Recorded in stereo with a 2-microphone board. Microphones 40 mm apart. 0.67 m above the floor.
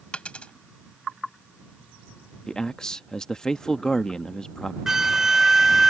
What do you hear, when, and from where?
0.1 s a dropped coin: 35° left (ahead or behind)
2.5 s a man speaking: 20° left (ahead or behind)
4.9 s a flute: 10° right (ahead or behind)